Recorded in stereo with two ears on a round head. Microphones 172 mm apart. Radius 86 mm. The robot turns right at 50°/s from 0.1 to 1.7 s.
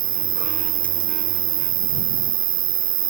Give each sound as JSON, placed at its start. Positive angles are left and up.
{"t": 0.0, "sound": "an insect", "azimuth_deg": -145}